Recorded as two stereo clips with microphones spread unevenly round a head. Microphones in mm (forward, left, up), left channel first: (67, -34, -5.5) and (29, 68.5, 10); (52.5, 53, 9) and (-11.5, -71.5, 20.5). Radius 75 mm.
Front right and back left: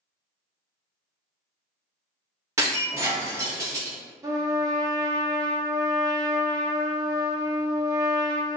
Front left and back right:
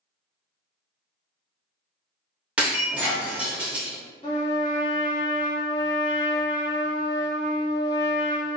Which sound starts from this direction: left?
A trumpet, at 4.2 s.